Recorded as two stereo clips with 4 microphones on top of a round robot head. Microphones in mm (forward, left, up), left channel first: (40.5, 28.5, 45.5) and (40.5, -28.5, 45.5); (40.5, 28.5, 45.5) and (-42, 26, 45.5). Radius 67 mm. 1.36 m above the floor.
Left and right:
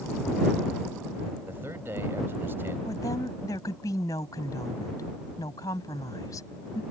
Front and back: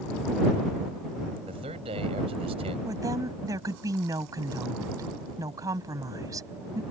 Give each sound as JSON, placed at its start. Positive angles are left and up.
{"t": 1.5, "sound": "a man speaking", "azimuth_deg": -155}
{"t": 2.9, "sound": "a woman speaking", "azimuth_deg": 130}